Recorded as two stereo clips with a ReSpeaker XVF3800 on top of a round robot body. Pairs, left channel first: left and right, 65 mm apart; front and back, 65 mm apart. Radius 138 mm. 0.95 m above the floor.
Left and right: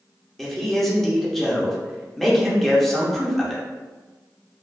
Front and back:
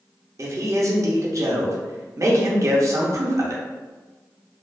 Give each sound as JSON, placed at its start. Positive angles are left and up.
{"t": 0.4, "sound": "a man speaking", "azimuth_deg": 175, "distance_m": 0.8}